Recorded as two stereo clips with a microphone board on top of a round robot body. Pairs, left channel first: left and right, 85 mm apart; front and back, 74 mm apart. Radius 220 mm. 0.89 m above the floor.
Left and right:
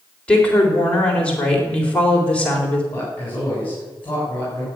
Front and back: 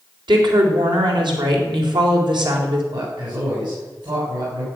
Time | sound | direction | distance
0.3 | a woman speaking | 165° left | 4 m
2.9 | a man speaking | 160° left | 7.5 m